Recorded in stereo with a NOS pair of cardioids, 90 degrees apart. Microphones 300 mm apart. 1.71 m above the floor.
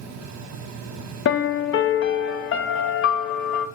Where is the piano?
45° left, 0.6 m.